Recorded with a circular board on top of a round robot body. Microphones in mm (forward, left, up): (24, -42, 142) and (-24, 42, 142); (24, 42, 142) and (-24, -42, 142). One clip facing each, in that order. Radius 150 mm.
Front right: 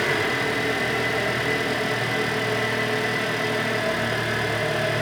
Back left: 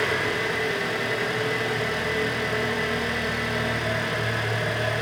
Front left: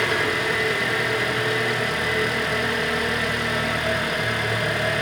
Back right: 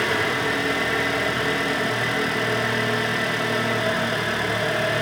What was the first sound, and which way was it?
An engine running, 60° right.